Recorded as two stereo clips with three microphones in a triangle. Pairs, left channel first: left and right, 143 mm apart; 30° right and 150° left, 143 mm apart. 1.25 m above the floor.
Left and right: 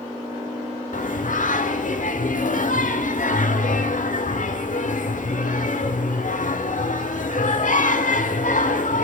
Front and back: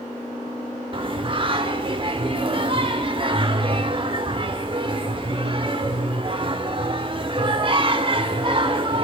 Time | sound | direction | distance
0.9 | singing | 100° left | 1.6 m